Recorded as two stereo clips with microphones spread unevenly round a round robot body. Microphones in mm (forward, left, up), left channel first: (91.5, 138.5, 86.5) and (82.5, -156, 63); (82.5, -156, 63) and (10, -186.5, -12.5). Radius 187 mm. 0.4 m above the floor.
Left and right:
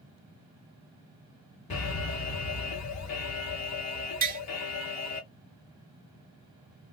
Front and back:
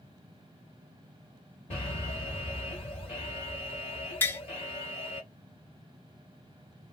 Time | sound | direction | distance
1.7 | an alarm | 70° left | 1.5 m
4.2 | tapping | 110° right | 1.1 m